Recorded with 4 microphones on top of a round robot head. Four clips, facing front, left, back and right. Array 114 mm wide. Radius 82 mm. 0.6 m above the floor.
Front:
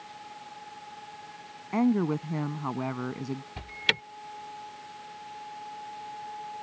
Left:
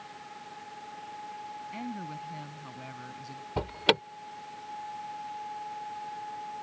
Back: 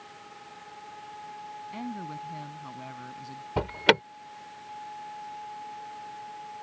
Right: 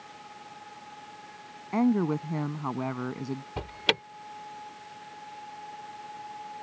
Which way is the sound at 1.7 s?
50° right.